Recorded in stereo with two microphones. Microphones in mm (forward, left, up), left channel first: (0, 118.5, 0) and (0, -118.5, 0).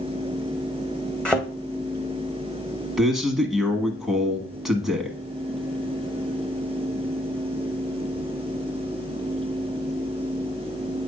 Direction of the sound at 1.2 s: 5° left (ahead or behind).